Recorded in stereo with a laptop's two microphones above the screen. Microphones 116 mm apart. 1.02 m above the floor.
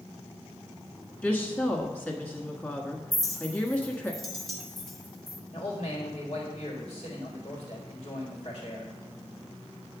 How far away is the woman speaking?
About 1.3 m.